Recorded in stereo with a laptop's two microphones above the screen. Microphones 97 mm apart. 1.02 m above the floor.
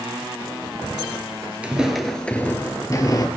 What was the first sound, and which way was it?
Footsteps, 15° right (ahead or behind).